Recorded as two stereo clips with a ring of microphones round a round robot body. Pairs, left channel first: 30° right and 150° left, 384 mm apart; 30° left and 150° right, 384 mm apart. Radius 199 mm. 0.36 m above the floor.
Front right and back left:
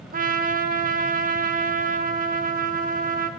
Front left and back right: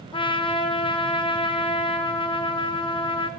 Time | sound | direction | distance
0.1 | a trumpet | 100° left | 0.5 m